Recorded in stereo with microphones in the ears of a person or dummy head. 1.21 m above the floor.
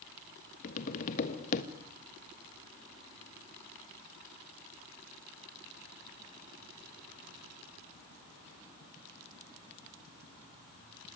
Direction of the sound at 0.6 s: 45° left (ahead or behind).